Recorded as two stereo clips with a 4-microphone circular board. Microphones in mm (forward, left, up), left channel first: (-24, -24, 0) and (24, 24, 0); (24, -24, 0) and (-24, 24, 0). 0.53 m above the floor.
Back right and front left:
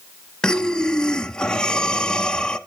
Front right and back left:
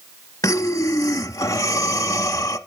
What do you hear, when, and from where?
0.4 s breathing: 60° right, 0.6 m